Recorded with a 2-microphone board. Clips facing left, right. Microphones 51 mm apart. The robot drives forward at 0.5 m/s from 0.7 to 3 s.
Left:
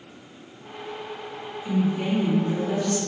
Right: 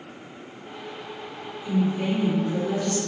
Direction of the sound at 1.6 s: 30° left (ahead or behind).